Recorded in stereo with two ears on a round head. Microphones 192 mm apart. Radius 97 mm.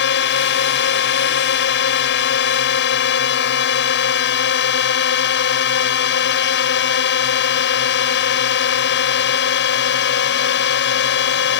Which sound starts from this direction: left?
A drone, at 0.0 s.